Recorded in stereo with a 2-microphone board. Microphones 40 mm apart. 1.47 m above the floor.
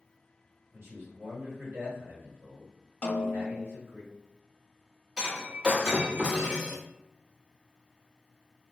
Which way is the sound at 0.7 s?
70° right (ahead or behind).